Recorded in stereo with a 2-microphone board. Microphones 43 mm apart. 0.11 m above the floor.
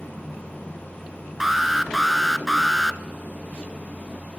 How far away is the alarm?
About 1.0 m.